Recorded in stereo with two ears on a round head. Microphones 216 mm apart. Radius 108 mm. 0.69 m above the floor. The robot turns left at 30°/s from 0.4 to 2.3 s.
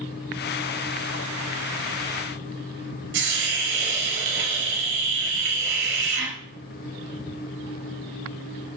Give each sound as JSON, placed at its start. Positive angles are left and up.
{"t": 3.1, "sound": "a hiss", "side_deg": -50, "distance_m": 1.7}